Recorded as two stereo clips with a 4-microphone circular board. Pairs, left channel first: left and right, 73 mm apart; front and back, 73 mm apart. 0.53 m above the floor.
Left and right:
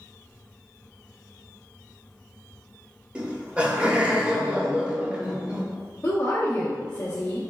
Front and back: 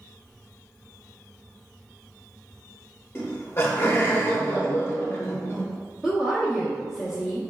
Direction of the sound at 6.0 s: 110° left.